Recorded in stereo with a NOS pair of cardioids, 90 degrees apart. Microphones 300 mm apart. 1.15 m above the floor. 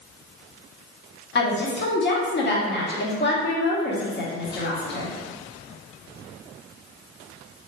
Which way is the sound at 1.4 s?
40° left.